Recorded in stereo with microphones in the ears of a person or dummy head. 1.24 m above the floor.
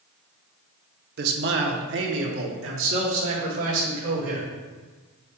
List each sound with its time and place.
1.2 s a man speaking: 55° right (ahead or behind), 0.9 m; by 4.5 s 75° right (ahead or behind), 3 m